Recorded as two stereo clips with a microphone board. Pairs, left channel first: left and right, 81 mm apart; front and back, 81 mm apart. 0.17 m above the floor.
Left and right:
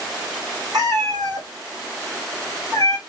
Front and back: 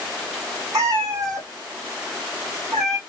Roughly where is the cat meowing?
Behind right.